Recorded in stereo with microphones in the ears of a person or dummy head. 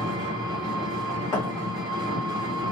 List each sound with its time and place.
0.0 s an engine running: 20° right (ahead or behind), 0.9 m
1.3 s a thud: 15° left (ahead or behind), 0.9 m